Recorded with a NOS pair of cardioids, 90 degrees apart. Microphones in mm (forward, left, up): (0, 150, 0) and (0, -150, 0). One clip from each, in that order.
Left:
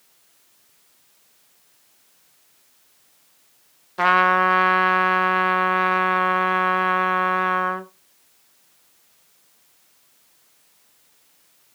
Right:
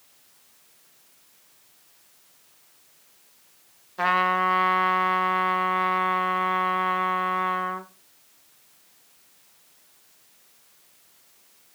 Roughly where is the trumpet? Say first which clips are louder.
Left 5 dB; ahead left.